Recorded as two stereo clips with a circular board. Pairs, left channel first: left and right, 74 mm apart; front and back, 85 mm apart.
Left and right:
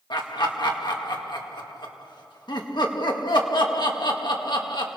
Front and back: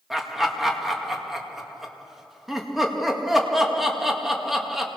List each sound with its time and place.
0.1 s laughter: 90° left, 2 m